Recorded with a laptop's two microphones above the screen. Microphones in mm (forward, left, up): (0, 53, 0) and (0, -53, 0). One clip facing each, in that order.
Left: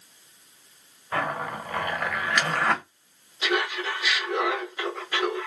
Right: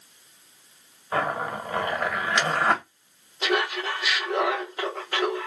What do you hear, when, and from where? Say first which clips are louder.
1.1 s a zipper: right 2 dB; 25° right (ahead or behind), 1.1 m
3.4 s laughter: right 1 dB; 45° right (ahead or behind), 0.9 m